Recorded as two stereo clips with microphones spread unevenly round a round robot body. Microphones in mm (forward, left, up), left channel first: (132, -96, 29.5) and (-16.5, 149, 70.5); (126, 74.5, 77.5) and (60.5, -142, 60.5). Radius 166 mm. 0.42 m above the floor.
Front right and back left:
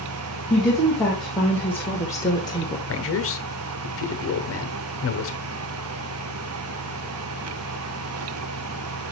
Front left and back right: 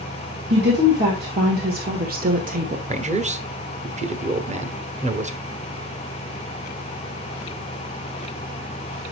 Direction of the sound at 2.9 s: 60° right.